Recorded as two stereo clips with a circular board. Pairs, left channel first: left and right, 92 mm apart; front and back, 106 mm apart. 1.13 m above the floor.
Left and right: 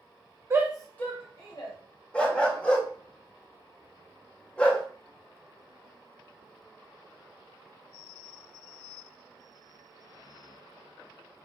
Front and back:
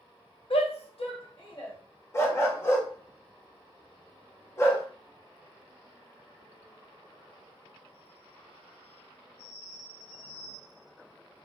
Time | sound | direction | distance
0.5 | a shout | 30° right | 0.6 m
2.1 | a dog barking | 25° left | 0.5 m